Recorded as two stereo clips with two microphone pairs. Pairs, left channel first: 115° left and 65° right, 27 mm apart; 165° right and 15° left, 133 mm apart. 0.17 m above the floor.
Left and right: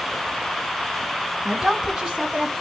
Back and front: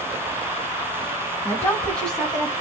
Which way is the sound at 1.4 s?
125° right.